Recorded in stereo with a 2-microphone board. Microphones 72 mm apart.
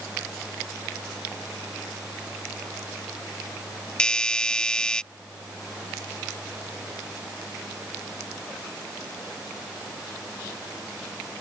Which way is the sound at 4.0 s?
10° left (ahead or behind).